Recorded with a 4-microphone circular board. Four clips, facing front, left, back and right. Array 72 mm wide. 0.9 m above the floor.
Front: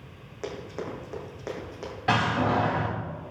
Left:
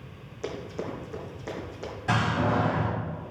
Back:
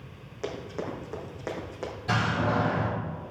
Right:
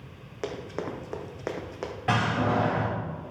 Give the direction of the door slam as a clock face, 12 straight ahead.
1 o'clock.